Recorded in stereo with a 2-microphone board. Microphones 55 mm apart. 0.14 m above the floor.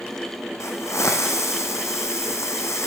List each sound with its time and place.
0.6 s a hiss: 55° left (ahead or behind), 1.1 m